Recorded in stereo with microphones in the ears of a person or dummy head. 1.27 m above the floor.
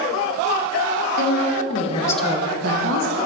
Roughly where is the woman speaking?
Left.